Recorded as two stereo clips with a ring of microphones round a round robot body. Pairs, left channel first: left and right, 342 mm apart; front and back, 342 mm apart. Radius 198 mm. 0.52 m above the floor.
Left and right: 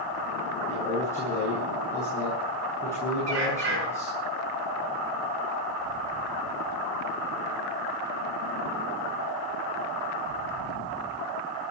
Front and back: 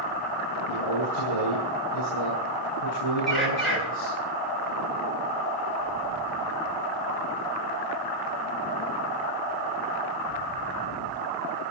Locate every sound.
0.7 s a man speaking: 10° left, 8 m
3.3 s a bird: 90° right, 8.5 m